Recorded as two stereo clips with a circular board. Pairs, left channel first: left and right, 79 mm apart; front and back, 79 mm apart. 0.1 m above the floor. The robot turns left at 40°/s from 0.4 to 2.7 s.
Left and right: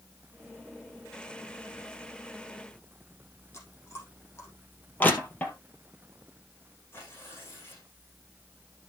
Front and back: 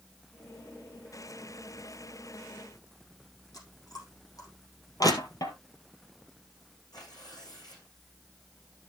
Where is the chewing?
35° left, 5 m.